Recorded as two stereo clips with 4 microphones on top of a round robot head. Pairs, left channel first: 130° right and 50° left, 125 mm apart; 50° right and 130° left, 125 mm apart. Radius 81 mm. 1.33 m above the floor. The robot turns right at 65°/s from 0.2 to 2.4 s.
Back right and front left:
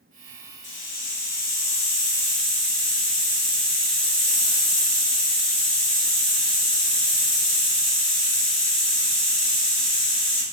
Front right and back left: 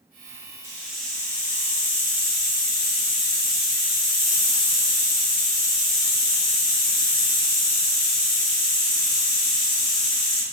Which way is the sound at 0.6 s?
160° right.